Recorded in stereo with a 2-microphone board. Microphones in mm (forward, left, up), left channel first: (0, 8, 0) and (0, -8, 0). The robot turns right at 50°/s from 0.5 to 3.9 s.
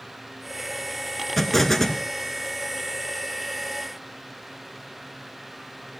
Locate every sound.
1.4 s an explosion: 5° left, 1.5 m; by 2.0 s 35° left, 1.5 m